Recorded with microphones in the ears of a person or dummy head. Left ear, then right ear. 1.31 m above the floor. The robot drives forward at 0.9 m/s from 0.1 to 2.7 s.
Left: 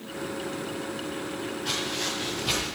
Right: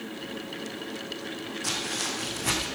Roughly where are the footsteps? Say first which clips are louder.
Even; right.